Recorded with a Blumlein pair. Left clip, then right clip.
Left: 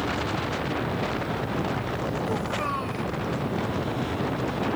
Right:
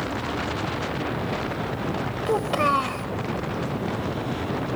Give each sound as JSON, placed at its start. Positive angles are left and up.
{"t": 2.3, "sound": "a child speaking", "azimuth_deg": -25}